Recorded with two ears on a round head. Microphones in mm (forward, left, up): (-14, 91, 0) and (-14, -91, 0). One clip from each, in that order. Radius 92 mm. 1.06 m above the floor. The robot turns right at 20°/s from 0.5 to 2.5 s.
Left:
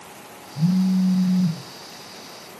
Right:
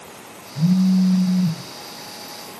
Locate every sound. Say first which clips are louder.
0.6 s a phone buzzing: right 3 dB; 35° left (ahead or behind), 1.0 m; by 1.6 s 30° left (ahead or behind), 1.0 m